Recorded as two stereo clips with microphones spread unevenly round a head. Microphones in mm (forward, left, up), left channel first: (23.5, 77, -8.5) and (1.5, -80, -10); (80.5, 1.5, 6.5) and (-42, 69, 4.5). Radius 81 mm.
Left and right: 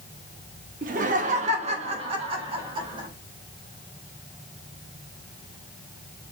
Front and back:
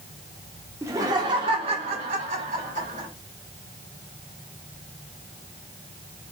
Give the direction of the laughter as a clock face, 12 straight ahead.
5 o'clock.